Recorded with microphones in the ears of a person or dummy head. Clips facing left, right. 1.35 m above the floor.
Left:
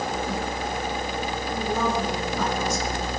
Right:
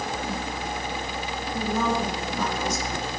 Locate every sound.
1.5 s a woman speaking: 75° left (ahead or behind), 4.5 m